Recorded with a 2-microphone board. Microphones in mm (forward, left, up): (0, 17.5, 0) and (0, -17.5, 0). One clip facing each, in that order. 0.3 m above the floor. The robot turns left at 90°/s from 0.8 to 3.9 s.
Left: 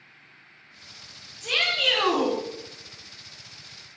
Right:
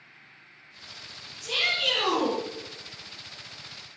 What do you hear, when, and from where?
1.4 s a shout: 125° left, 3.5 m; by 2.4 s 35° left, 3.5 m